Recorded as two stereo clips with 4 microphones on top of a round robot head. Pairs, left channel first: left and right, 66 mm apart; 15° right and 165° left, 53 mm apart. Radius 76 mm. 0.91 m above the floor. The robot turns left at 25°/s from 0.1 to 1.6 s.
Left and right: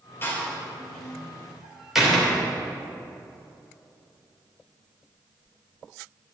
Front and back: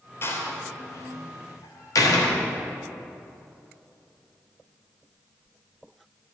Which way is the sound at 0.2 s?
30° left.